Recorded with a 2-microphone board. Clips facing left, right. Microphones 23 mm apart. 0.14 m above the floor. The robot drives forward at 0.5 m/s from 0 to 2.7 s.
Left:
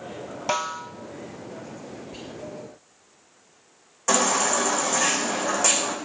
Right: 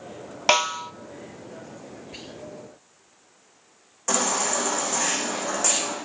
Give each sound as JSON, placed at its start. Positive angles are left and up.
{"t": 0.5, "sound": "a snare drum", "side_deg": -70, "distance_m": 0.5}
{"t": 2.1, "sound": "whispering", "side_deg": -40, "distance_m": 3.0}
{"t": 4.1, "sound": "a baby crying", "side_deg": 15, "distance_m": 5.5}